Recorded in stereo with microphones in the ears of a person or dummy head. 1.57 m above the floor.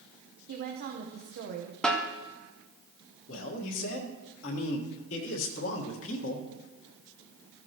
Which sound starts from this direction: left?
A man speaking, at 3.3 s.